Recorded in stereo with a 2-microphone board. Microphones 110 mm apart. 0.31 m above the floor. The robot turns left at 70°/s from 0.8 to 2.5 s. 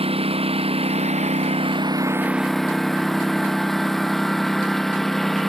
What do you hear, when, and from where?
0.0 s a lawn mower: 65° right; by 5.5 s straight behind